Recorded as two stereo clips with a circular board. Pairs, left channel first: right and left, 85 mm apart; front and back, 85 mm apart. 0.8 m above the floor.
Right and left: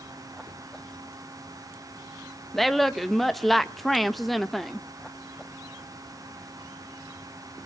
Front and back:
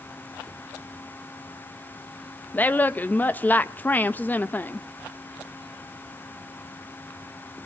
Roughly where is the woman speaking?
Ahead.